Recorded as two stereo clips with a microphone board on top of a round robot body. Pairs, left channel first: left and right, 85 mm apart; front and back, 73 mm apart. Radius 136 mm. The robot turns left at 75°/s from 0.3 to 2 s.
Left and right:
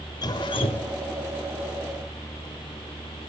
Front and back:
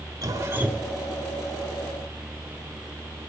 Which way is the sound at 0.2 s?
135° left.